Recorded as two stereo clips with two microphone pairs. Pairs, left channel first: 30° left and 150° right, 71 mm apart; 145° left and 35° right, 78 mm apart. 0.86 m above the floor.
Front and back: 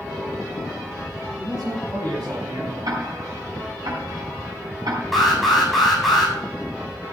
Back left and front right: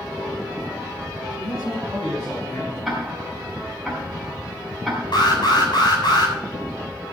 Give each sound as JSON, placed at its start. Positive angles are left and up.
{"t": 1.4, "sound": "a man speaking", "azimuth_deg": -175, "distance_m": 9.0}
{"t": 2.9, "sound": "ticking", "azimuth_deg": -125, "distance_m": 5.0}
{"t": 5.1, "sound": "an alarm", "azimuth_deg": 125, "distance_m": 7.5}